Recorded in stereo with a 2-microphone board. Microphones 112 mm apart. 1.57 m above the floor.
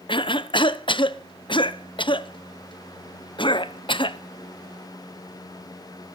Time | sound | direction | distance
0.1 | a cough | 45° left (ahead or behind) | 0.7 m